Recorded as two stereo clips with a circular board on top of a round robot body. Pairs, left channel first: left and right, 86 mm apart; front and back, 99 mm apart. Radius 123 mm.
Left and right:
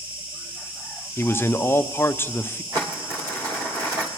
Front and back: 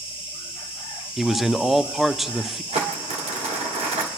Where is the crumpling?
155° right, 1.5 m.